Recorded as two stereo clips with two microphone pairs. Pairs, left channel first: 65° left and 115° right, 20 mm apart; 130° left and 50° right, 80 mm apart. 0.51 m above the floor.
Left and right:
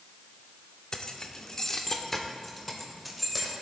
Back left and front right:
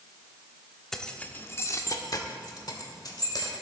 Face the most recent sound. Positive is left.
turn(degrees=160)